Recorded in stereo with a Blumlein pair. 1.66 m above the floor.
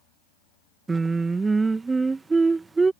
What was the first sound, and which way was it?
Singing, 10° right.